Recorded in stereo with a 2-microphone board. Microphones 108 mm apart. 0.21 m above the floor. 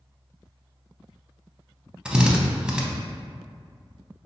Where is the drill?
10° right (ahead or behind), 0.5 m.